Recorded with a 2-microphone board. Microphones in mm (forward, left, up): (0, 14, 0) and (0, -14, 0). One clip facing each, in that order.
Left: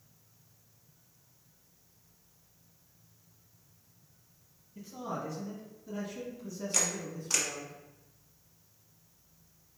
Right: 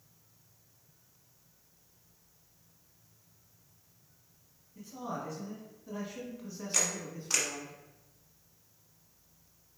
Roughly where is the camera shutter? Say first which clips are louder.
Even; centre.